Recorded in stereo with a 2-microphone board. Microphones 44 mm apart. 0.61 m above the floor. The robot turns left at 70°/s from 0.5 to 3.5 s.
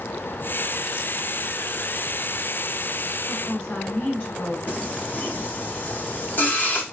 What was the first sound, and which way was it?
A woman speaking, 15° left (ahead or behind).